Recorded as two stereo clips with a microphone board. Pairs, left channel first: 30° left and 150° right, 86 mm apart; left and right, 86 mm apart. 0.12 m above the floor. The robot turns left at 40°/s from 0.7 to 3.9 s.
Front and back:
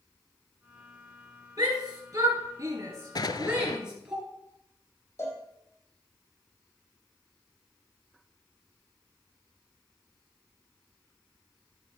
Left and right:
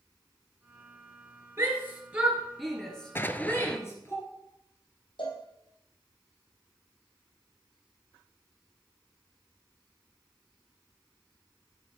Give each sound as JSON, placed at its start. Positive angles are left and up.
{"t": 1.6, "sound": "a shout", "azimuth_deg": -135, "distance_m": 2.0}
{"t": 3.1, "sound": "an explosion", "azimuth_deg": 35, "distance_m": 0.5}
{"t": 5.2, "sound": "a cowbell", "azimuth_deg": 85, "distance_m": 2.5}